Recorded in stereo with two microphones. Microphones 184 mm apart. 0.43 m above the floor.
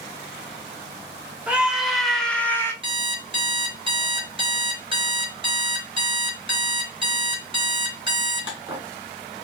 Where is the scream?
5° right (ahead or behind), 1.6 m; by 2.7 s 15° left (ahead or behind), 1.2 m.